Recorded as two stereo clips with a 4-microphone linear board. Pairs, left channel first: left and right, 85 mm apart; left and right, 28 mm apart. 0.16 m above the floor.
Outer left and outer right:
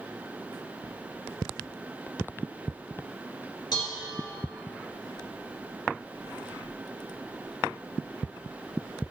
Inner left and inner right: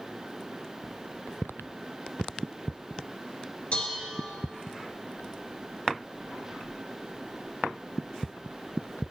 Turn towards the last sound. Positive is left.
turn(degrees=55)  # may be behind; listen again after turning